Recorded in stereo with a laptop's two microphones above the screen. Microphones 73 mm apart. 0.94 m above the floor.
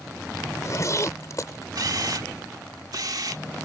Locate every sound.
0.4 s a zipper: 45° left (ahead or behind)
1.8 s a camera shutter: 60° right (ahead or behind)